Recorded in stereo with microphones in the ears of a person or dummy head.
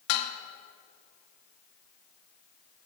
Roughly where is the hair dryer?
I don't hear a hair dryer.